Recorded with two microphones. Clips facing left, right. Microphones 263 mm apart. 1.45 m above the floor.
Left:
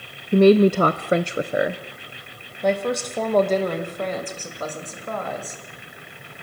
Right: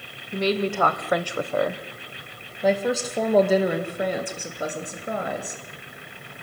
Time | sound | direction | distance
0.3 | a woman speaking | 65° left (ahead or behind) | 0.6 m